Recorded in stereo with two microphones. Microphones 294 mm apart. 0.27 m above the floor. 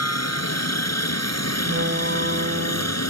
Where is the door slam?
45° right (ahead or behind).